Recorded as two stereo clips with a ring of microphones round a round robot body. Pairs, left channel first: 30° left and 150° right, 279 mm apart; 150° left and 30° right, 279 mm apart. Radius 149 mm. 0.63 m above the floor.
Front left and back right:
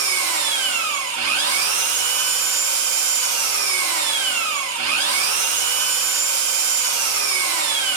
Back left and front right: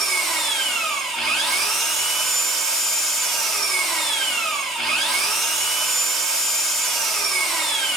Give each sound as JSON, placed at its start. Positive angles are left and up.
{"t": 0.0, "sound": "an engine running", "azimuth_deg": -120, "distance_m": 0.7}